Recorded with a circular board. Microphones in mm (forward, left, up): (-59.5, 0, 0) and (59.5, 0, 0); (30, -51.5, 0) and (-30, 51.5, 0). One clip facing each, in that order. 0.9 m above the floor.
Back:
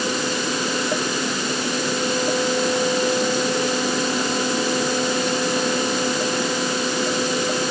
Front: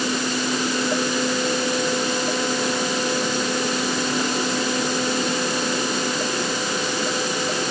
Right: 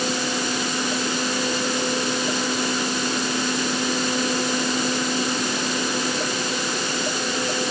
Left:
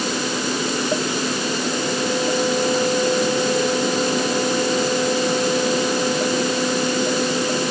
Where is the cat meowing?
I don't hear a cat meowing.